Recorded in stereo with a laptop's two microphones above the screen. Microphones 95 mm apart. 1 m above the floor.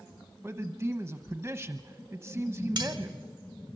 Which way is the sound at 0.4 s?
25° right (ahead or behind).